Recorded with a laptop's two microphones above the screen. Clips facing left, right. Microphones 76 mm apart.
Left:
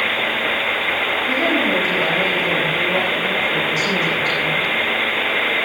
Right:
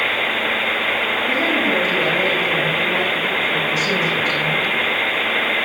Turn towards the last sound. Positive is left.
turn(degrees=-5)  # may be behind; listen again after turning